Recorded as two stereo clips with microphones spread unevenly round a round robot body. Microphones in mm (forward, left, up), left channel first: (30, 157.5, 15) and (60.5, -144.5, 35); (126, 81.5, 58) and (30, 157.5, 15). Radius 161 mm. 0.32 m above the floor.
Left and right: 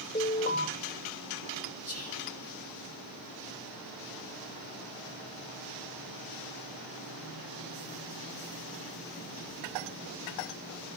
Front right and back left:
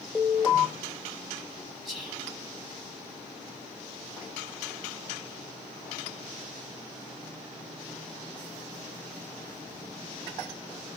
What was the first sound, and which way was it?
An alarm, 50° left.